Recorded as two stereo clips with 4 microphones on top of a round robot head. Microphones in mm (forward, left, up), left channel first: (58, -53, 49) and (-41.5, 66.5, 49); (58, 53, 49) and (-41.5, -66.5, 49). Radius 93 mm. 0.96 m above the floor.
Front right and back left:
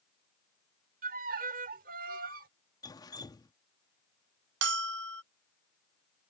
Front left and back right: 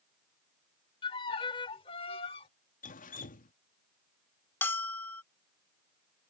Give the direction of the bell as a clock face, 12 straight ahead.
8 o'clock.